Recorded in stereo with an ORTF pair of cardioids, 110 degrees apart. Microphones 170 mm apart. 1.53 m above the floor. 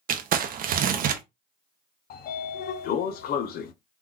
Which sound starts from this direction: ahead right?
Crumpling, at 0.1 s.